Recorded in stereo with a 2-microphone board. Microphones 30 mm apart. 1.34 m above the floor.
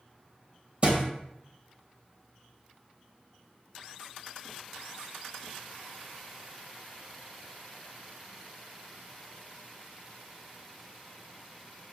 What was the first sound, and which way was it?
A thud, 40° right (ahead or behind).